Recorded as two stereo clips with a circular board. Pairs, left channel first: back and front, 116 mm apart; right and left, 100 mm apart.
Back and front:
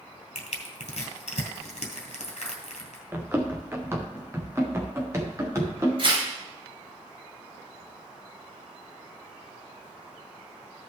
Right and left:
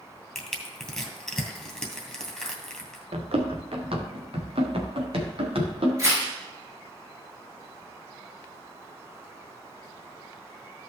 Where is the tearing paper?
30° left, 4 m.